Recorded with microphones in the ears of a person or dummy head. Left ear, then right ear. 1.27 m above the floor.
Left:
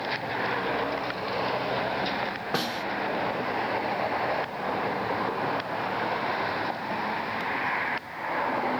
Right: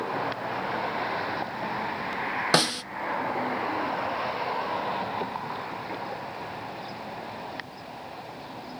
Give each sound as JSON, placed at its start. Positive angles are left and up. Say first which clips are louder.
{"t": 2.5, "sound": "a snare drum", "louder": "right 6 dB", "side_deg": -65, "distance_m": 0.6}